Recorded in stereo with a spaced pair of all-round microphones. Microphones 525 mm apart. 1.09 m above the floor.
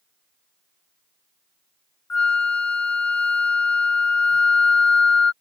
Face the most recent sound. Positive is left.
turn(degrees=35)  # may be behind; listen again after turning